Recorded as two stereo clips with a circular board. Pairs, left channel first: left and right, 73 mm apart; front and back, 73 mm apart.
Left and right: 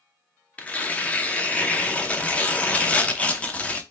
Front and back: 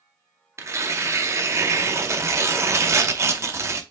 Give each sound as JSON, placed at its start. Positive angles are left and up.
{"t": 0.6, "sound": "tearing paper", "azimuth_deg": 155, "distance_m": 0.5}